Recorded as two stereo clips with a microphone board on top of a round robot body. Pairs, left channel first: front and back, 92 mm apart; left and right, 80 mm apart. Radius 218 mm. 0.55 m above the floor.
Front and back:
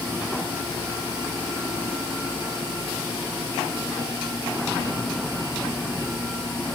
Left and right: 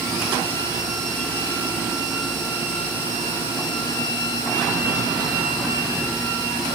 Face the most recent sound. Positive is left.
No sound to turn to.